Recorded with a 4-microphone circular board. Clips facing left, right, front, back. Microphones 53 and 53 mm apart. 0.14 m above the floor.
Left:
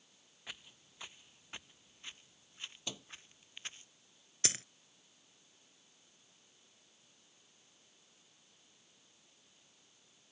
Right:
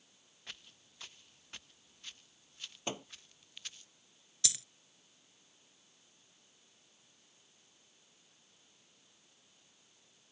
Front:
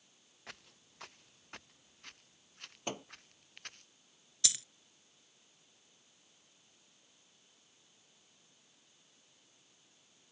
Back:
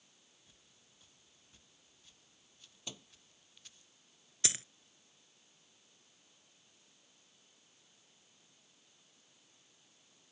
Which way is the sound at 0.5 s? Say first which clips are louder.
Left 1 dB, front 14 dB; 10° left.